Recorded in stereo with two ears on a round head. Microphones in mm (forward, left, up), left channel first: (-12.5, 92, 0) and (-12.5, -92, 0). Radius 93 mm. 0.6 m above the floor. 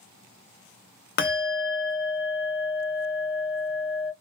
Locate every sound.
1.2 s a bell: 45° left (ahead or behind), 0.7 m